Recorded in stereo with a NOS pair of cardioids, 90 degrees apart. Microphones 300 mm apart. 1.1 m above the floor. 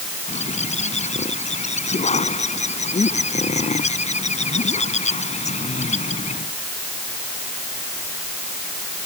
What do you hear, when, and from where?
0.3 s a bird: 20° left